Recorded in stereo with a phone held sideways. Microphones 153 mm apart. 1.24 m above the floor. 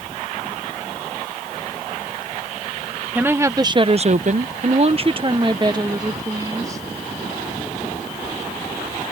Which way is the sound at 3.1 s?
10° right (ahead or behind).